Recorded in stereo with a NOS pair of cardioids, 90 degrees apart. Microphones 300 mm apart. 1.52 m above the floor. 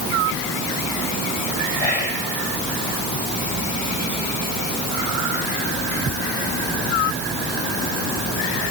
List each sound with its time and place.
1.8 s whispering: 30° left, 9 m